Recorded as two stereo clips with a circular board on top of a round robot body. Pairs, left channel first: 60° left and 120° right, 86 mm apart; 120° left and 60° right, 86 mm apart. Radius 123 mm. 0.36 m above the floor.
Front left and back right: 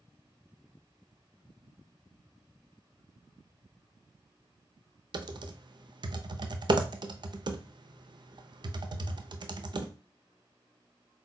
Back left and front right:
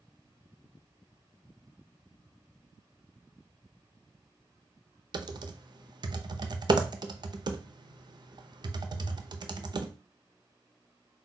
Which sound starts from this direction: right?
Typing on a keyboard, at 5.1 s.